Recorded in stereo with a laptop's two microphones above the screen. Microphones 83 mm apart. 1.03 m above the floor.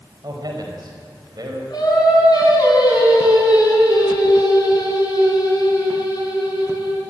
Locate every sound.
0.2 s a man speaking: 55° right (ahead or behind), 5 m
1.7 s singing: 60° left (ahead or behind), 8 m